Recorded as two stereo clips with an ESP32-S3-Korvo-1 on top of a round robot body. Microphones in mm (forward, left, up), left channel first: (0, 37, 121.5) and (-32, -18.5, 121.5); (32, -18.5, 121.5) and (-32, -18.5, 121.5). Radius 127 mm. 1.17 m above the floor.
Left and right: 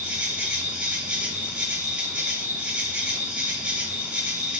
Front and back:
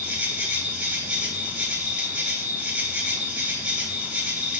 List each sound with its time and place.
0.0 s an insect: 160° right, 0.9 m